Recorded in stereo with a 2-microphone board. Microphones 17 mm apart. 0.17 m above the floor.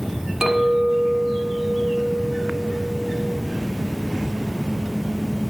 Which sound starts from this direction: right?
A clink, at 0.4 s.